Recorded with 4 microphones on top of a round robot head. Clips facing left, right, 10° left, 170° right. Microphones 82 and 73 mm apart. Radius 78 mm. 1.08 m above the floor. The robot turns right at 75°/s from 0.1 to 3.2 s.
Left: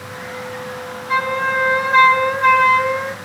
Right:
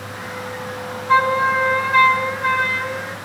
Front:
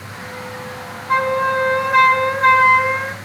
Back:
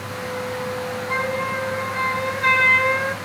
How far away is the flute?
About 1.8 m.